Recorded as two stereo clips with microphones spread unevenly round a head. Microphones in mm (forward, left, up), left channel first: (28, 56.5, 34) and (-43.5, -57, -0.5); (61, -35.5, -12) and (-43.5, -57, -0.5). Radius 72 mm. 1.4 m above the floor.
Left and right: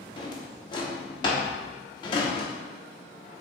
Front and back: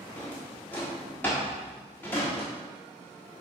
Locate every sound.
0.2 s a drawer: 90° left, 1.2 m